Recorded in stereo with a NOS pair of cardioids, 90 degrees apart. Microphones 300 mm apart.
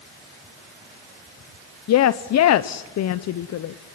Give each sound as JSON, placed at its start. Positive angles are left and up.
{"t": 1.9, "sound": "a woman speaking", "azimuth_deg": 60, "distance_m": 0.8}